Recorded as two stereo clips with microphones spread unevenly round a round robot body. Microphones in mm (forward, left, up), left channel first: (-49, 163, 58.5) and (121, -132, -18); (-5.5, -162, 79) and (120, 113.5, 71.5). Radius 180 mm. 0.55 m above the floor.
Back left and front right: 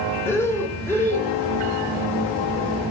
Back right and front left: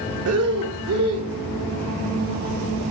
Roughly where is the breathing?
Ahead left.